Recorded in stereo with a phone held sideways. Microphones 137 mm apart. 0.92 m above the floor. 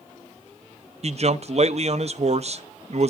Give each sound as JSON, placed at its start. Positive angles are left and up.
{"t": 1.0, "sound": "a man speaking", "side_deg": -50, "distance_m": 0.5}